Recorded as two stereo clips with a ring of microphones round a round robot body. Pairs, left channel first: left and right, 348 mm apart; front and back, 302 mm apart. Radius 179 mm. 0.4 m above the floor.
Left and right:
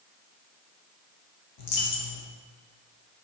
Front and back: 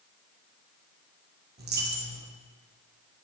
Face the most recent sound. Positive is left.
turn(degrees=120)